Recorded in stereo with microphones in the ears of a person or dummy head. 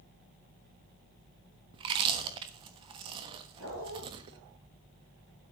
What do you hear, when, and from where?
1.7 s chewing: 30° right (ahead or behind), 1.2 m
3.6 s a dog barking: 80° right, 10 m